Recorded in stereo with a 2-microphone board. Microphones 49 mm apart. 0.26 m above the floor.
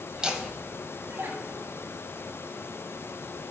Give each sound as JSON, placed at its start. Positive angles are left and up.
{"t": 0.1, "sound": "laughter", "side_deg": -15, "distance_m": 1.5}